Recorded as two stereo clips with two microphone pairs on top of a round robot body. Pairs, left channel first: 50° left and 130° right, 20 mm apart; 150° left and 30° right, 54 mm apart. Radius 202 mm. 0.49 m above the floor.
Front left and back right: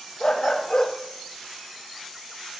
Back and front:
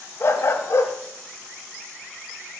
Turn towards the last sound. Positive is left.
turn(degrees=100)